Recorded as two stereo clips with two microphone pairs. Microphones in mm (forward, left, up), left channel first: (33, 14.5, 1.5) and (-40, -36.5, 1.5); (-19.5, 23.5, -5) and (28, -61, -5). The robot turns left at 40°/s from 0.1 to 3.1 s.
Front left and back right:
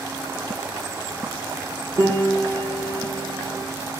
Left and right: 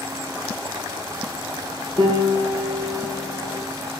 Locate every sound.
2.0 s a piano: 100° right, 0.6 m; by 3.6 s 145° right, 0.6 m